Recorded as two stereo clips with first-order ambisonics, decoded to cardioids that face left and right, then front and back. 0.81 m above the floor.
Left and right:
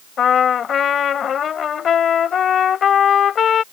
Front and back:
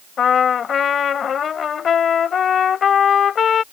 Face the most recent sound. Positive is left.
turn(degrees=45)